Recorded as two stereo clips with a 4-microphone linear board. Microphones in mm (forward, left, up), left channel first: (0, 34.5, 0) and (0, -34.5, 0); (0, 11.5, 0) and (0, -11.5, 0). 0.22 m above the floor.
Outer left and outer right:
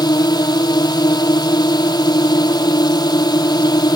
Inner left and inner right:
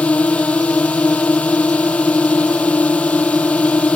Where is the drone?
75° left (ahead or behind).